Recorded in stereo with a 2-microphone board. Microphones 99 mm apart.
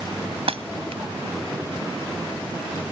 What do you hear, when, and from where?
0.5 s breaking glass: 70° right (ahead or behind)